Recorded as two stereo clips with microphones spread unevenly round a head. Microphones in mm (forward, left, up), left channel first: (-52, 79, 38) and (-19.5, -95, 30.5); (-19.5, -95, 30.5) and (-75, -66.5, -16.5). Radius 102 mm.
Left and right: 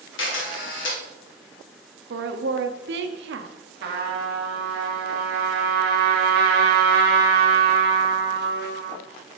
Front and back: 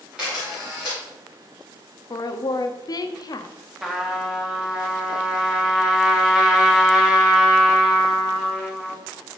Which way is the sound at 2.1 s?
45° right.